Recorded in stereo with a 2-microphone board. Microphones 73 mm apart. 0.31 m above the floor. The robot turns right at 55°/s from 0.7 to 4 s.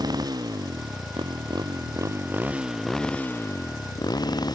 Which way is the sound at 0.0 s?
120° right.